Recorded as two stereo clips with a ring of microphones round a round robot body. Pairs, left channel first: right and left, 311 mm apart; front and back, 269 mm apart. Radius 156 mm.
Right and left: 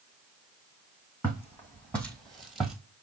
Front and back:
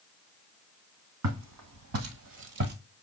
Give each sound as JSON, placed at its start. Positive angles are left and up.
{"t": 1.2, "sound": "footsteps", "azimuth_deg": -175, "distance_m": 1.7}